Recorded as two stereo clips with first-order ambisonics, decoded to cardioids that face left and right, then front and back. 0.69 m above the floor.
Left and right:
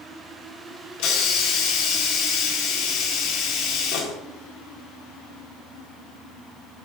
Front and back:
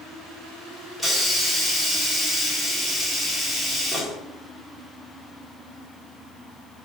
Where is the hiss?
80° left, 1.9 m.